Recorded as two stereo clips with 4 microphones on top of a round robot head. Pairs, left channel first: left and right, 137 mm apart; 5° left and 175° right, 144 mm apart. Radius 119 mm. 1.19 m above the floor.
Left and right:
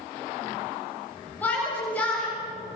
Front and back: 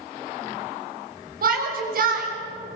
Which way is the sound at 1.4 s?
170° left.